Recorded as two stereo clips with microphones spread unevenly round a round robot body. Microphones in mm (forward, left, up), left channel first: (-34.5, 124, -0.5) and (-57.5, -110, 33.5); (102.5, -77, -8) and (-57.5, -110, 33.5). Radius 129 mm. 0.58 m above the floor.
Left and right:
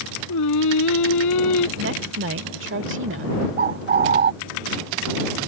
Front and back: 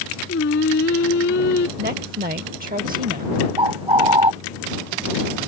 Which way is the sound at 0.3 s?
55° left.